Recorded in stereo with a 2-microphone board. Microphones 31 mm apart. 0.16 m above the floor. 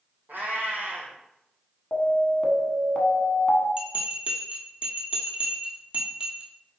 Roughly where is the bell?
Right.